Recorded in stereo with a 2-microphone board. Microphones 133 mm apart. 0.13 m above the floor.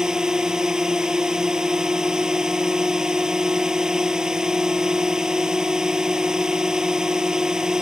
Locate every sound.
0.0 s a drone: 5° right (ahead or behind)